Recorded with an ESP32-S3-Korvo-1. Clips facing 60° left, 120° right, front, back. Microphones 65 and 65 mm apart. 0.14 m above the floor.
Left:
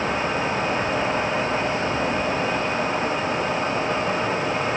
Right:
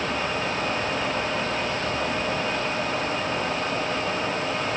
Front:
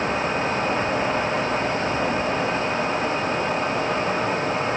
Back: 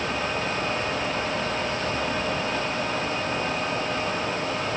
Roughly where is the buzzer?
I don't hear a buzzer.